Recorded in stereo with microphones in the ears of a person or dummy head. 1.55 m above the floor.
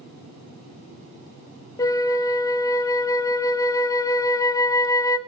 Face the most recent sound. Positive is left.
turn(degrees=25)  # may be behind; listen again after turning